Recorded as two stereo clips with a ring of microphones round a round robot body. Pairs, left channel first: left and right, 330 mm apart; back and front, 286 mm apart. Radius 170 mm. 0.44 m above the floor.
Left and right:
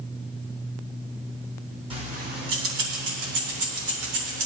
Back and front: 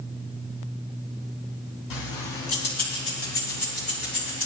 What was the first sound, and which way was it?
Keys jangling, 165° right.